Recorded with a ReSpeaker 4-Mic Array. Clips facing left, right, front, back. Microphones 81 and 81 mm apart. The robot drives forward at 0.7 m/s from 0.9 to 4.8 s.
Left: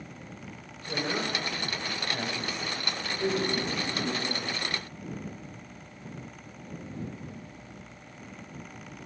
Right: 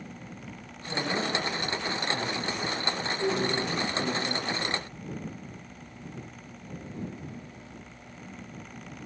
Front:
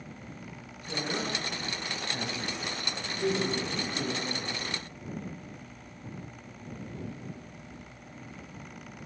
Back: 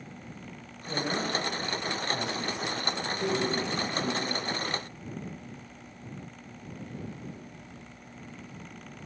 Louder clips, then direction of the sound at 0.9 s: Right 1 dB, back 3 dB; 100° left.